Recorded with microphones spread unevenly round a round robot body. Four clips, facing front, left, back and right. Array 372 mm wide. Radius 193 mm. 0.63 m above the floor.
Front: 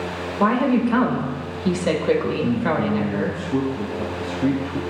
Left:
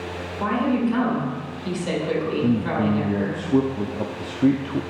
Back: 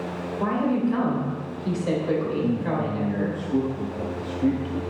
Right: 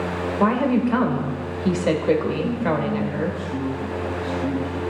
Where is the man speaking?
60° left, 0.9 m.